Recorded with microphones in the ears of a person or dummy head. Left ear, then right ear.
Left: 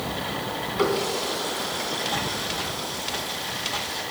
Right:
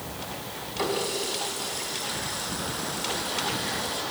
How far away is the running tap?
About 3 m.